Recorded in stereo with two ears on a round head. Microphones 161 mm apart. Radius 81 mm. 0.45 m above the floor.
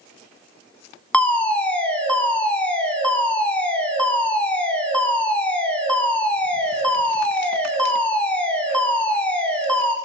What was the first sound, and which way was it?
A fire alarm, 5° left (ahead or behind).